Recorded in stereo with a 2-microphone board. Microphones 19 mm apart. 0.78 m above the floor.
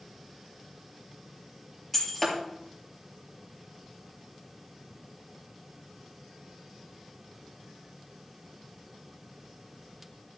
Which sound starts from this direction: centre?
Breaking glass, at 1.9 s.